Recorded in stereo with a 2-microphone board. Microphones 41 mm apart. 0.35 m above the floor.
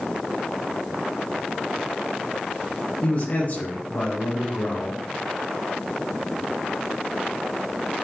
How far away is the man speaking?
About 3 m.